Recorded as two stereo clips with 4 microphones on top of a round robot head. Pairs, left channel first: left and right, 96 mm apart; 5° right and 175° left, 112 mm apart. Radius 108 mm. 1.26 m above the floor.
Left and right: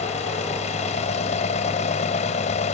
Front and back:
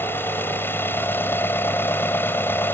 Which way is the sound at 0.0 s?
70° left.